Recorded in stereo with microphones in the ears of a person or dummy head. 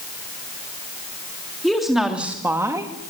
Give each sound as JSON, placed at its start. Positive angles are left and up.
{"t": 1.6, "sound": "a woman speaking", "side_deg": 0, "distance_m": 3.0}